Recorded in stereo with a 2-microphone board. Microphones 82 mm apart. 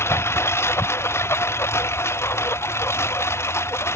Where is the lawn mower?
30° left (ahead or behind).